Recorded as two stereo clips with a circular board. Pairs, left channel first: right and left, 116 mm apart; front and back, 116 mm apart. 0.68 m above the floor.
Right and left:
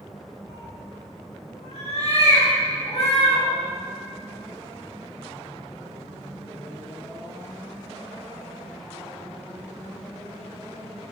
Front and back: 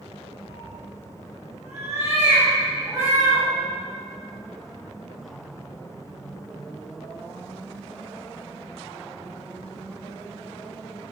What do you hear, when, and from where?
0.5 s a cat meowing: 115° right, 4 m